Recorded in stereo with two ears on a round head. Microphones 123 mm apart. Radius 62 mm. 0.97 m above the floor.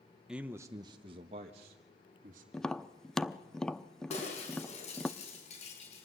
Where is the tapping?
5° left (ahead or behind), 0.7 m.